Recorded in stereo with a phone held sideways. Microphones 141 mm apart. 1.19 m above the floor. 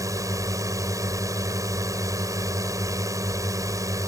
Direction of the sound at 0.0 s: 25° right (ahead or behind).